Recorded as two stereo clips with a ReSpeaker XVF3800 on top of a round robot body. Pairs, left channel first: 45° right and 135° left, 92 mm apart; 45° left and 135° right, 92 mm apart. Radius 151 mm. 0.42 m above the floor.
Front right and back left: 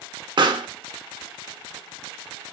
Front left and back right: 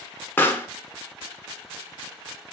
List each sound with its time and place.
0.4 s a pop: 110° left, 1.5 m